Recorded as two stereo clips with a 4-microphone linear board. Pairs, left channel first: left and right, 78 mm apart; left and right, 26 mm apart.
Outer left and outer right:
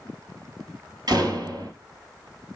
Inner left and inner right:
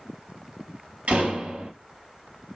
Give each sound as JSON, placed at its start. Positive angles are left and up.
{"t": 1.1, "sound": "a door slam", "side_deg": -65, "distance_m": 2.0}